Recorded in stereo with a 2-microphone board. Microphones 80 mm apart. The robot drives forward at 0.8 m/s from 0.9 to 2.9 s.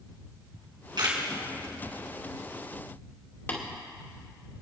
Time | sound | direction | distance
0.5 | a camera shutter | 65° right (ahead or behind) | 3 m
3.5 | tapping | 30° left (ahead or behind) | 2.5 m